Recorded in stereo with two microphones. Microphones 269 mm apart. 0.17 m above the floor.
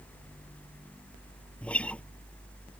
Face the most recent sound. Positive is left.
turn(degrees=5)  # may be behind; listen again after turning